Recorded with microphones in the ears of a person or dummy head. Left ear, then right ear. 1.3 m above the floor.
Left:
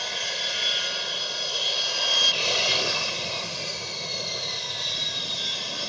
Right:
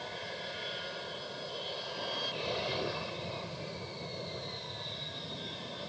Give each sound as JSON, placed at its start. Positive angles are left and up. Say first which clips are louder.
{"t": 0.0, "sound": "an aircraft", "louder": "left 13 dB", "side_deg": 70}